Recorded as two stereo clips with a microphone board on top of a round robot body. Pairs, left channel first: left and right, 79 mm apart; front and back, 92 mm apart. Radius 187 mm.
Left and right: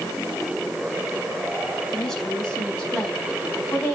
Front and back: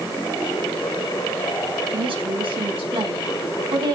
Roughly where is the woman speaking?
Behind.